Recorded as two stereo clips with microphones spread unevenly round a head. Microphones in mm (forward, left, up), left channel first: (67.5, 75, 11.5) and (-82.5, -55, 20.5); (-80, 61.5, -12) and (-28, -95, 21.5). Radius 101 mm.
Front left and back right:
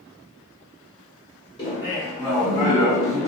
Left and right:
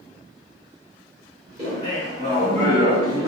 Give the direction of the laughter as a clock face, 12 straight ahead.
1 o'clock.